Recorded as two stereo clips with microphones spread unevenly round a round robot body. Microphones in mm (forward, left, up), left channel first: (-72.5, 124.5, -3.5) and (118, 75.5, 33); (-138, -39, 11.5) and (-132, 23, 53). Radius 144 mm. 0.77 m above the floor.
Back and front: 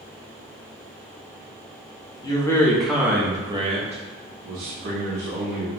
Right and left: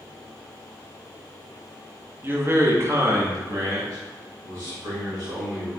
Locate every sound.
2.2 s a man speaking: 175° right, 0.9 m; by 5.7 s 15° left, 1.5 m